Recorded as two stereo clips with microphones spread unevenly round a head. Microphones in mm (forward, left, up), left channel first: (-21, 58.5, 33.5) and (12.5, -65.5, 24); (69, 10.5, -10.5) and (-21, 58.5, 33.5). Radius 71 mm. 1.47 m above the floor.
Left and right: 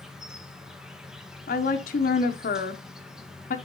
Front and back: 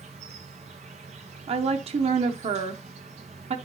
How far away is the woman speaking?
About 1.0 m.